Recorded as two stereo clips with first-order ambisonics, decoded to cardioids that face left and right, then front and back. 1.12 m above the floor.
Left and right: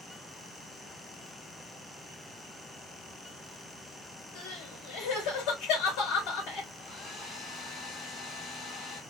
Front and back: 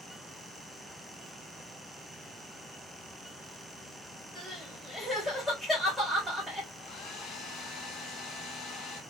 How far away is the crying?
About 2.5 m.